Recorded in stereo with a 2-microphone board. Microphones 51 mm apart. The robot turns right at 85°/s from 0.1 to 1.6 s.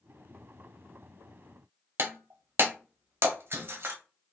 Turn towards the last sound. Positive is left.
turn(degrees=-50)  # may be behind; listen again after turning